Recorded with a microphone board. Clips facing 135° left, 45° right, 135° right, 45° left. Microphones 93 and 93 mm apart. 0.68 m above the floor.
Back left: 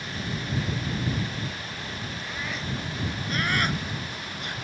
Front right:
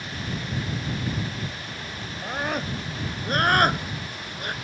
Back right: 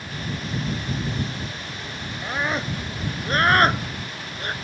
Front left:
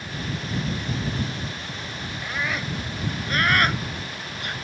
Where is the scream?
80° right; by 4.5 s 85° right.